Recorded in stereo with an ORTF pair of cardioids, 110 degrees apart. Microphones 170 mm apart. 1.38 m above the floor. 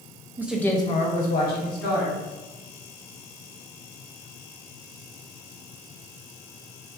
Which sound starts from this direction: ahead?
A woman speaking, at 0.4 s.